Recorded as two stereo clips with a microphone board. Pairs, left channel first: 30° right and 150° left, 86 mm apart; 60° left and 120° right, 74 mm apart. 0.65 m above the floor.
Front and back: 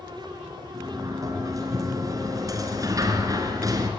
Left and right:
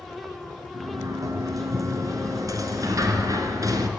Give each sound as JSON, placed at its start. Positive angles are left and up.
{"t": 0.7, "sound": "a sliding door", "azimuth_deg": -160, "distance_m": 3.5}